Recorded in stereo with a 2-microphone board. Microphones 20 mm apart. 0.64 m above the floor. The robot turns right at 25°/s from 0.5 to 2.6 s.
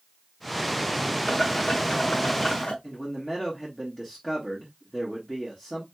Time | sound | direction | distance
1.3 | boiling | 40° left | 1.3 m
2.8 | a man speaking | 35° left (ahead or behind) | 1.7 m